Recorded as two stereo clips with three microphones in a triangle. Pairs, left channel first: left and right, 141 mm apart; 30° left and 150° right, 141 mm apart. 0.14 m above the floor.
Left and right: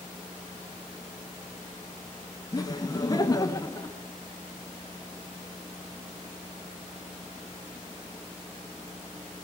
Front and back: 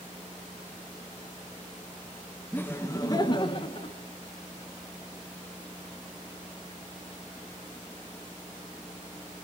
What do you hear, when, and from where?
2.5 s laughter: 95° left, 1.1 m; by 4.0 s 35° left, 1.4 m